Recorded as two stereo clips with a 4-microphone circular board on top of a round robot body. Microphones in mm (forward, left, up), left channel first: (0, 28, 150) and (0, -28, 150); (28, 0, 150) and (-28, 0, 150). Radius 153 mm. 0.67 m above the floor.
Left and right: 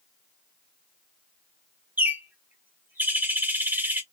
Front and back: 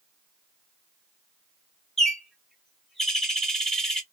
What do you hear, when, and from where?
2.0 s a bird: 80° right, 1.0 m